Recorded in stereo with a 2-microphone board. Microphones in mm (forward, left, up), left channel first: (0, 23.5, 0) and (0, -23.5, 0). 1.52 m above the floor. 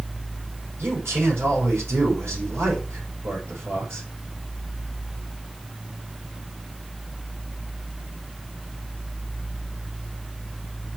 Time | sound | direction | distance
0.8 | a man speaking | 70° right (ahead or behind) | 6 m